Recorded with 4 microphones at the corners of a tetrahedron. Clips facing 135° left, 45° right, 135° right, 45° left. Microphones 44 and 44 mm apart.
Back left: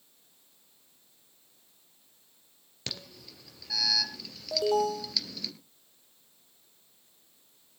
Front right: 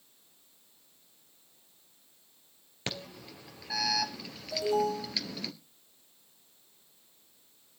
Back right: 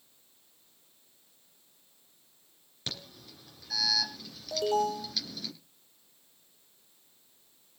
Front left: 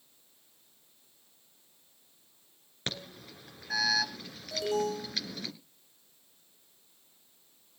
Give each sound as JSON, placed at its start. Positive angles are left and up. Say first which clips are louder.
{"t": 2.9, "sound": "an alarm", "louder": "front right 3 dB, front left 3 dB", "azimuth_deg": 10, "distance_m": 3.0}
{"t": 4.5, "sound": "an alarm", "louder": "back left 2 dB, back right 3 dB", "azimuth_deg": 165, "distance_m": 4.5}